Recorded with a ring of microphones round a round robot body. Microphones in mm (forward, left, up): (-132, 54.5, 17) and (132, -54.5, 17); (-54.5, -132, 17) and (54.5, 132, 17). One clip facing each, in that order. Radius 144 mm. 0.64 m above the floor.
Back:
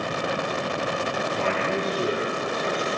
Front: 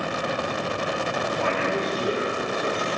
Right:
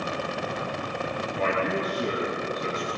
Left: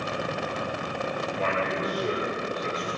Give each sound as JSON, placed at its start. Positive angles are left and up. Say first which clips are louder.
{"t": 1.4, "sound": "a man speaking", "louder": "front 1 dB, right 4 dB", "azimuth_deg": -140, "distance_m": 9.5}